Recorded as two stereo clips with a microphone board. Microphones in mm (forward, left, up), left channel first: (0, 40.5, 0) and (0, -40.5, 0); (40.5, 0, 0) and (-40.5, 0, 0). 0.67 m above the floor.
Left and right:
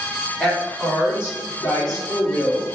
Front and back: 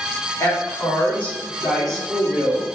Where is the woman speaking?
20° left, 1.4 m; by 2.7 s 100° left, 2.0 m.